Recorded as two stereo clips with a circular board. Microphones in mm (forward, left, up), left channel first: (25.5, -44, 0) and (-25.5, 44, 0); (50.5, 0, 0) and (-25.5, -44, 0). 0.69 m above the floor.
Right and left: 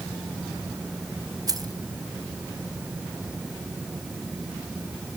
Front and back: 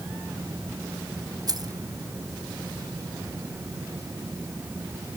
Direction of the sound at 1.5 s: 170° left.